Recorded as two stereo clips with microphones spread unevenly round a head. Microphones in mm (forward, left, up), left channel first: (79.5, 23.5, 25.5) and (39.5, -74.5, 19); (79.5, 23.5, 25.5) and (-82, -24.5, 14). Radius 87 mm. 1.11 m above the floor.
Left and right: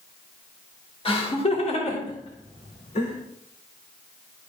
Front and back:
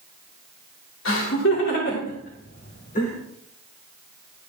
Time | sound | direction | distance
1.1 | laughter | 30° left | 3 m